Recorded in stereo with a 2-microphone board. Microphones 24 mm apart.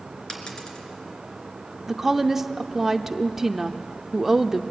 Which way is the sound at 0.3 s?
30° left (ahead or behind).